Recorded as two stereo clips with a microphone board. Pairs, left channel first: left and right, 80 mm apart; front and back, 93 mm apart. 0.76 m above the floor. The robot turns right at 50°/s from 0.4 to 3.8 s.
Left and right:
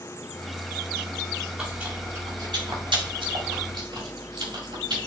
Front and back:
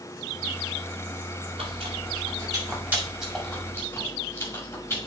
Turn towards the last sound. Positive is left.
turn(degrees=-65)